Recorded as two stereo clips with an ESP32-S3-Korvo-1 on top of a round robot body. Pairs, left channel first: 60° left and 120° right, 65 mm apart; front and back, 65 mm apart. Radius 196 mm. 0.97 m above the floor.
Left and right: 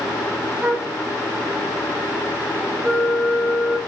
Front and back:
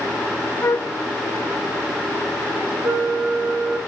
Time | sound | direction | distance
0.6 | a flute | 45° right | 1.2 m
2.8 | a flute | 165° left | 0.7 m